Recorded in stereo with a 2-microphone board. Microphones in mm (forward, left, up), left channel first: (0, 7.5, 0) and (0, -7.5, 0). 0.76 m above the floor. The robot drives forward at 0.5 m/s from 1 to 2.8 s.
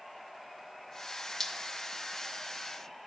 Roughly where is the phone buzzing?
No phone buzzing in this recording.